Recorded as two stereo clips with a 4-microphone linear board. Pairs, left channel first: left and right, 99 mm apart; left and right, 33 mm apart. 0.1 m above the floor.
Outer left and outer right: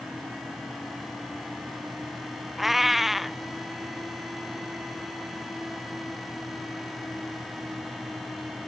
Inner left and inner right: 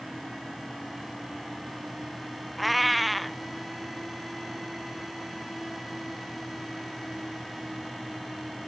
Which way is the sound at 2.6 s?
Centre (ahead or behind).